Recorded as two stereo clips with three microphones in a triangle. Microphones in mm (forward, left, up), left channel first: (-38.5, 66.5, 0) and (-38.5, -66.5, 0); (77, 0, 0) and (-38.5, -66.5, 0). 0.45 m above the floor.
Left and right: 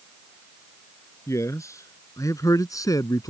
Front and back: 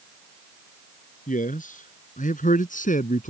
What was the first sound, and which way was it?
A man speaking, 20° left.